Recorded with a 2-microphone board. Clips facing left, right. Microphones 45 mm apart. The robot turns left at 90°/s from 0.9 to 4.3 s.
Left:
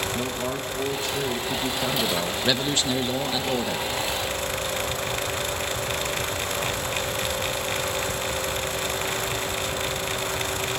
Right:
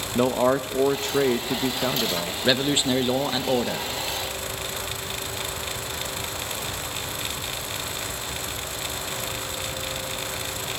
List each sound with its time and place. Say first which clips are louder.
0.1 s a man speaking: right 7 dB; 75° right, 0.8 m; by 2.3 s 160° left, 0.8 m
2.4 s a man speaking: right 5 dB; 10° right (ahead or behind), 0.9 m; by 3.9 s 5° right (ahead or behind), 0.9 m